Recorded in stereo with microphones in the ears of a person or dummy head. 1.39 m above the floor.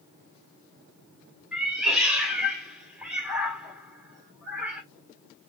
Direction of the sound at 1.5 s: 5° right (ahead or behind).